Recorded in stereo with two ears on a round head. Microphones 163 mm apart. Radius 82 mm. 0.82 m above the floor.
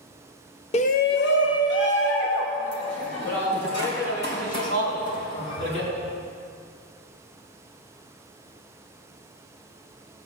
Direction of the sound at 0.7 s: 35° left (ahead or behind).